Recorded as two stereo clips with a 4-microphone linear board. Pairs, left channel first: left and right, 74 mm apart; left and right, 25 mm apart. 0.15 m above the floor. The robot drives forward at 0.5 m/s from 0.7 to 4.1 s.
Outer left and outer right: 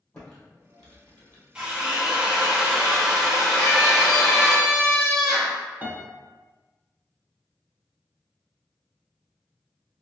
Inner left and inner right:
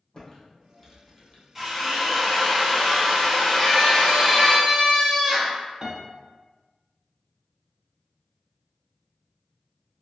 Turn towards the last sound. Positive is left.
turn(degrees=-30)  # may be behind; listen again after turning